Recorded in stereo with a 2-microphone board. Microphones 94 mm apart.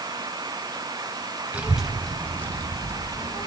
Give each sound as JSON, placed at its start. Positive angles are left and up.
{"t": 1.5, "sound": "a child speaking", "side_deg": -15, "distance_m": 0.9}